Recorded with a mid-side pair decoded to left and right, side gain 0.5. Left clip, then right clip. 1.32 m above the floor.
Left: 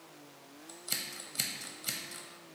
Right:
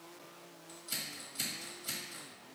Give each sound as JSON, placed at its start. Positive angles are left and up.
{"t": 0.7, "sound": "scissors", "azimuth_deg": 55, "distance_m": 0.8}